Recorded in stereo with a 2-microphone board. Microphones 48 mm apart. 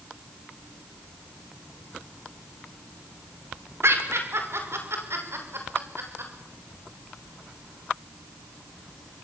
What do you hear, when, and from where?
3.8 s laughter: 70° right (ahead or behind), 5 m; by 6.3 s 65° right (ahead or behind), 6.5 m